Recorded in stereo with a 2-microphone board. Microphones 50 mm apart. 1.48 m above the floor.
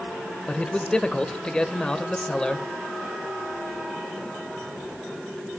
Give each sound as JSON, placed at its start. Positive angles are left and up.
{"t": 0.5, "sound": "a man speaking", "side_deg": 15, "distance_m": 1.4}